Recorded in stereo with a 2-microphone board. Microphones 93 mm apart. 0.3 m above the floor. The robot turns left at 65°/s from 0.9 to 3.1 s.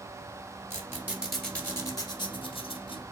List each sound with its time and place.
0.7 s a squeak: 30° right (ahead or behind), 1.8 m; by 3.0 s 70° left (ahead or behind), 1.8 m